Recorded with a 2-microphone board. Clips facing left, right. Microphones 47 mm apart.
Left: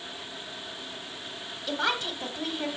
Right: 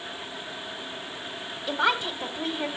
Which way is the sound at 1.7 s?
15° right (ahead or behind).